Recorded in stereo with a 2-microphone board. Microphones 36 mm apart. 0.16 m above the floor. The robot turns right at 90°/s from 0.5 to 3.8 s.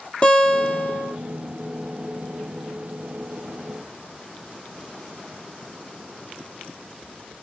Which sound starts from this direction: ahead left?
A guitar, at 0.2 s.